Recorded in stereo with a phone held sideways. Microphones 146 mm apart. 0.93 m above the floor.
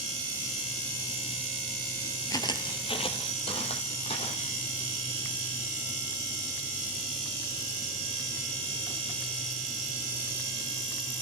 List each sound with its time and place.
2.3 s footsteps: 25° left (ahead or behind), 1.0 m; by 4.5 s 45° left (ahead or behind), 2.5 m